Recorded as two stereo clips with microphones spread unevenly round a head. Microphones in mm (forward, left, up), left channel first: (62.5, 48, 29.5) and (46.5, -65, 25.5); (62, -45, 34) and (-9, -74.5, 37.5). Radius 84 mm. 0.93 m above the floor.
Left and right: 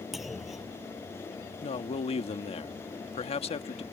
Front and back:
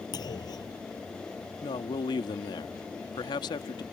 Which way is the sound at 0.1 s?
10° right.